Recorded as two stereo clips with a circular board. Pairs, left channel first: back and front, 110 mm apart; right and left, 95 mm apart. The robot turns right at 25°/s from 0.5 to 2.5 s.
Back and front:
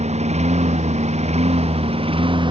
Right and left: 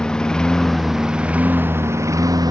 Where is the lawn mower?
5° right; by 2.5 s 45° left.